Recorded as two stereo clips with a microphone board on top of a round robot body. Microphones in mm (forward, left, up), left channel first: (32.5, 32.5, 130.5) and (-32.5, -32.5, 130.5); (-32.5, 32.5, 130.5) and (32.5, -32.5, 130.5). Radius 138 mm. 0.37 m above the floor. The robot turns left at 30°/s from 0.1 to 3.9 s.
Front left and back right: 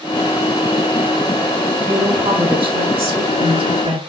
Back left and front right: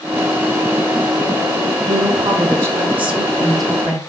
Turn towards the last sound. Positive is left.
turn(degrees=-145)